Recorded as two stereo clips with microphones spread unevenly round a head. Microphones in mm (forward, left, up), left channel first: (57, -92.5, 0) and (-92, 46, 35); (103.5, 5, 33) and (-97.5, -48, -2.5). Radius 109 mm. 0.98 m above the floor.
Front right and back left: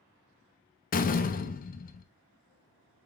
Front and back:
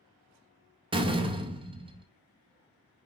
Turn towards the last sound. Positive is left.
turn(degrees=-95)